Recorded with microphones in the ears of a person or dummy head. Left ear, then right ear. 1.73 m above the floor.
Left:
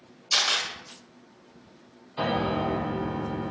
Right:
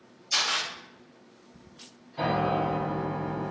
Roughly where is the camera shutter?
Left.